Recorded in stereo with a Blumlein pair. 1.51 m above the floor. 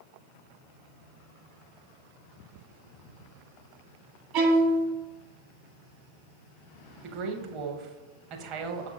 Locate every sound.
4.3 s a violin: 40° right, 0.9 m
7.0 s a woman speaking: 35° right, 0.7 m